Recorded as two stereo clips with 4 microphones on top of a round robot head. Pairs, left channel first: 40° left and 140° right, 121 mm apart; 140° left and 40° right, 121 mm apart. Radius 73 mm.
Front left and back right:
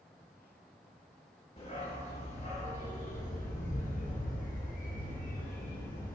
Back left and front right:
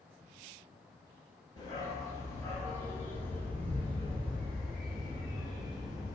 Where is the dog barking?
80° left, 3.5 m; by 6.2 s 45° left, 4.5 m.